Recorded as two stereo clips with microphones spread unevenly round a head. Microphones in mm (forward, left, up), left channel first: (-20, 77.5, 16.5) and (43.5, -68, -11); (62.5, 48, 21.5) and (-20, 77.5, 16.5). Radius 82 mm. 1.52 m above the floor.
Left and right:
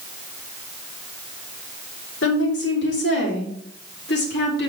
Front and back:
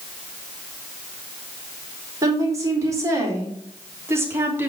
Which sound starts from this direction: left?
A woman speaking, at 2.2 s.